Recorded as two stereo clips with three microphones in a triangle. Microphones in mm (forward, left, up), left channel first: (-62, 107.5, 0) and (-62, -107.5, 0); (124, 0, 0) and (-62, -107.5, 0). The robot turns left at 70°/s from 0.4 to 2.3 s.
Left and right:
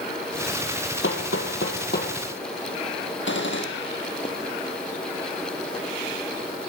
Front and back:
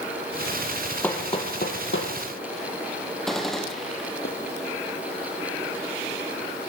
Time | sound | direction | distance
1.0 | hammering | 115° left | 3 m
3.3 | a gunshot | 120° left | 3 m